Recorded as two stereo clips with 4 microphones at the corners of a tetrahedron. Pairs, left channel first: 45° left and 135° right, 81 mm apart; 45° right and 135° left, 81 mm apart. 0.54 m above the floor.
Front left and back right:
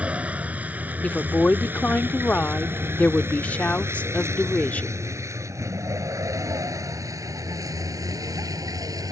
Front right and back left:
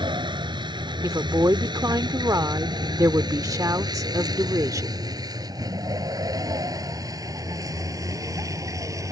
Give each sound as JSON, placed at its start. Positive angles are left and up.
{"t": 0.0, "sound": "a vehicle", "azimuth_deg": 150}
{"t": 1.0, "sound": "a woman speaking", "azimuth_deg": 110}